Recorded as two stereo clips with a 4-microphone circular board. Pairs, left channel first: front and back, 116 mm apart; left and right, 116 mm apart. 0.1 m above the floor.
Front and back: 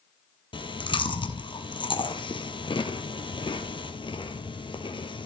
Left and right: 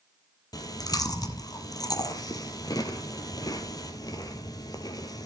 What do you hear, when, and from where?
0.5 s chewing: 40° left, 1.3 m